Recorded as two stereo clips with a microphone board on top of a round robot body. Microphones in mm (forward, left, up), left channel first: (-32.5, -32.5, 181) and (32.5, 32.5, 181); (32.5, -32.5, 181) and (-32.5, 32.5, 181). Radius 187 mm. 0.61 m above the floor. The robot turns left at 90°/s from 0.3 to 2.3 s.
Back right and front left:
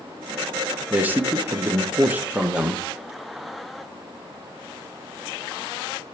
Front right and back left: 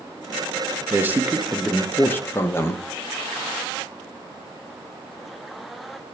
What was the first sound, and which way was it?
A man speaking, 110° left.